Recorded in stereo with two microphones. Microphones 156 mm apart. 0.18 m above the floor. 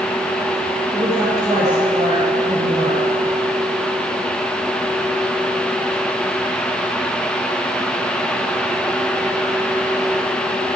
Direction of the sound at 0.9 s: 45° right (ahead or behind).